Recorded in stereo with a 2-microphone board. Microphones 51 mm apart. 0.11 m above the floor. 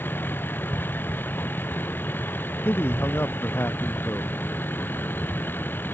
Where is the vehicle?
45° left (ahead or behind).